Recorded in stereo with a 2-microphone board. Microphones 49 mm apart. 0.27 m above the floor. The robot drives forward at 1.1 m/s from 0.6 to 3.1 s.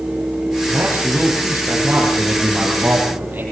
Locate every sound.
0.7 s a man speaking: 50° right (ahead or behind), 9 m; by 3.4 s 40° right (ahead or behind), 10.5 m